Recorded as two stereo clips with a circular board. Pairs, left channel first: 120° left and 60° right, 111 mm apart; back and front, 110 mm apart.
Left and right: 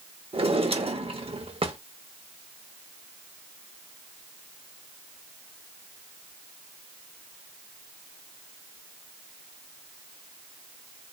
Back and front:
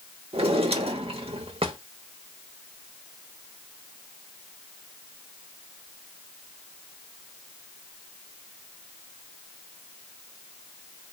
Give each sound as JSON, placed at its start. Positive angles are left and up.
{"t": 0.3, "sound": "a drawer", "azimuth_deg": -30, "distance_m": 0.9}